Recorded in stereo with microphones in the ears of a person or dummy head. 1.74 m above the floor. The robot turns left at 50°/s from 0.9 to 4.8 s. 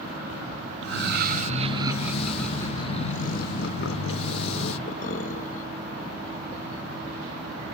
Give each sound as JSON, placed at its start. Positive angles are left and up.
{"t": 0.8, "sound": "laughter", "azimuth_deg": -115, "distance_m": 0.8}